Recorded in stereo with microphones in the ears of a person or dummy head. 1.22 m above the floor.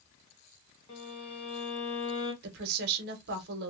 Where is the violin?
25° left (ahead or behind), 0.7 m.